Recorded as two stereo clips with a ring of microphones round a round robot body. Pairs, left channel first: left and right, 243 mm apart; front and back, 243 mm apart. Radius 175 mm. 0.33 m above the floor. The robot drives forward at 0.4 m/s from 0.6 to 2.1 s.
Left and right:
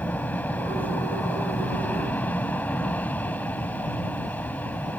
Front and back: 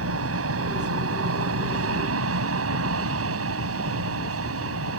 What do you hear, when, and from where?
0.0 s an aircraft: 175° left